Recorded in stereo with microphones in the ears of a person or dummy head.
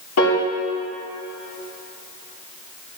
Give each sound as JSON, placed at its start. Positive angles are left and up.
{"t": 0.2, "sound": "a piano", "side_deg": 75, "distance_m": 2.0}